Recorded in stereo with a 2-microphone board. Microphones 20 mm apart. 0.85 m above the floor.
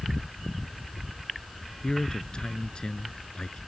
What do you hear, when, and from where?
1.8 s a man speaking: 45° left (ahead or behind)